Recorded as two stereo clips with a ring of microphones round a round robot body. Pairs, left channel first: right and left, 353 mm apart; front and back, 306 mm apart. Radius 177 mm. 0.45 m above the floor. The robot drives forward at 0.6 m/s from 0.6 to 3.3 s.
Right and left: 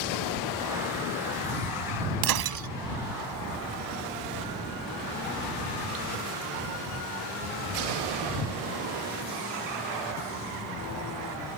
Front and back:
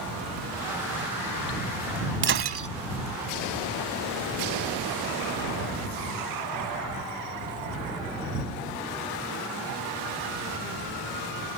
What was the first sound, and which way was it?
Breaking glass, 125° left.